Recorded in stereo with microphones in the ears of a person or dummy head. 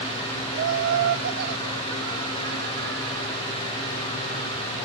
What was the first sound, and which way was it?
Laughter, 55° right (ahead or behind).